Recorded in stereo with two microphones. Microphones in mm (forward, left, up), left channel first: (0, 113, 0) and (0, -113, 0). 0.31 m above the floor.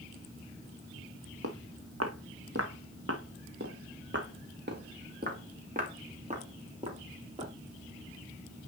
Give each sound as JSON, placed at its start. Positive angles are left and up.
{"t": 1.4, "sound": "footsteps", "side_deg": -80, "distance_m": 1.7}